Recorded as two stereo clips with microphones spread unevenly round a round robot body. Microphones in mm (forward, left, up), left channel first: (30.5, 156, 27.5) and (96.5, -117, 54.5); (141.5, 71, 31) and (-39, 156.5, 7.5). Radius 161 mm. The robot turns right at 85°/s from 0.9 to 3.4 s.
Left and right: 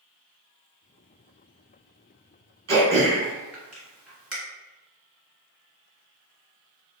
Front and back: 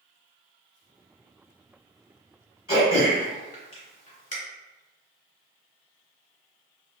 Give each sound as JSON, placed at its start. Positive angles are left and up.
{"t": 2.7, "sound": "throat clearing", "azimuth_deg": -50, "distance_m": 1.8}